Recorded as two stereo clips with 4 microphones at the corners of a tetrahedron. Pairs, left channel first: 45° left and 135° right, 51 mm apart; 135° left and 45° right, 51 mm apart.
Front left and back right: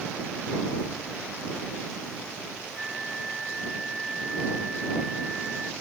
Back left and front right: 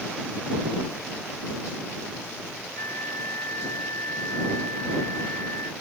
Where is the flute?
140° left.